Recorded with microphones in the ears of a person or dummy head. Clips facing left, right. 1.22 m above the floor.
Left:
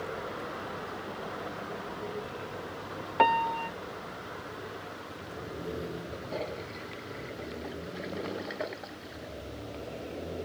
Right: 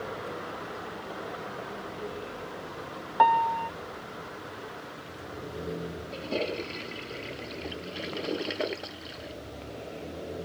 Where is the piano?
35° left (ahead or behind).